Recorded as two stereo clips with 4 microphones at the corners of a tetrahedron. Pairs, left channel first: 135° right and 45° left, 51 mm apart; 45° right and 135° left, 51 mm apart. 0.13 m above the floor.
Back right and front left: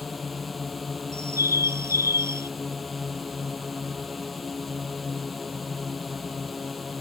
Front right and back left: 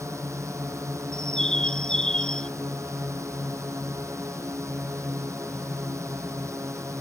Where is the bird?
30° left.